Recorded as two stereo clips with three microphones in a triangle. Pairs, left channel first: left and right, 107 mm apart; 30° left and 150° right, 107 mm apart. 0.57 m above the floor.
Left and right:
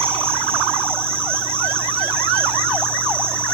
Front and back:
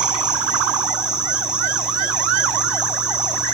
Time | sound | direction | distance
0.0 | an insect | 70° right | 2 m